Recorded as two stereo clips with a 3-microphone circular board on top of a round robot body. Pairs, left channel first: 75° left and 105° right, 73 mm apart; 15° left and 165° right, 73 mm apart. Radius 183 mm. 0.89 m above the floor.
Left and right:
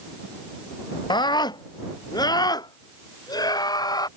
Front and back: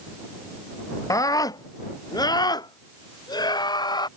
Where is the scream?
60° left; by 4.1 s 40° left.